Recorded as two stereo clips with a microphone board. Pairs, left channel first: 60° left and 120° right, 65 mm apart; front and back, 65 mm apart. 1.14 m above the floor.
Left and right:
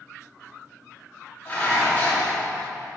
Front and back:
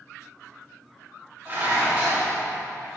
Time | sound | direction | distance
1.4 | dishes clattering | 120° left | 1.6 m